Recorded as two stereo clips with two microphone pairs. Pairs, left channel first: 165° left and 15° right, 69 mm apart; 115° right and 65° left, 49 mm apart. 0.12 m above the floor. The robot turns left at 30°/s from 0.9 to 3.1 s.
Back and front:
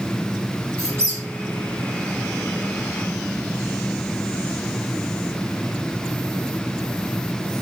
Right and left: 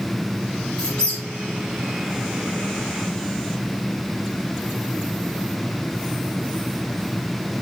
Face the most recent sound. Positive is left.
turn(degrees=-110)